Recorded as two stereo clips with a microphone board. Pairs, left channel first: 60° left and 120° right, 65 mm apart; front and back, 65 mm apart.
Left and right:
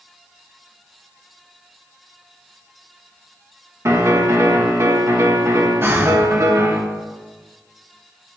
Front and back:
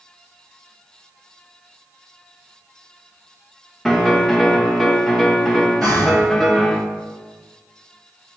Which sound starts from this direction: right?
A piano, at 3.9 s.